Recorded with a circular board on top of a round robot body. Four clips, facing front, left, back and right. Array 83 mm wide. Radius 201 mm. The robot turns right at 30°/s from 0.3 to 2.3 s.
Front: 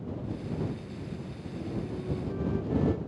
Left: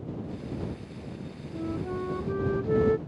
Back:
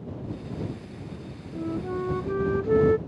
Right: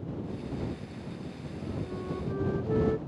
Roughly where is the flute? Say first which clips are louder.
Left 6 dB, back 7 dB; behind left.